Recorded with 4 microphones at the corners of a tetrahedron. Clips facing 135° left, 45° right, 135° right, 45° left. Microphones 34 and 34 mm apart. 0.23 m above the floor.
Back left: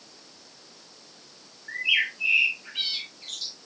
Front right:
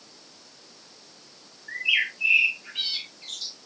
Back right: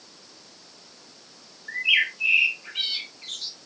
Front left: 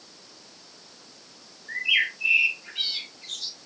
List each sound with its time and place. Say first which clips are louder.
1.7 s a bird: even, back right 2 dB; 160° right, 3 m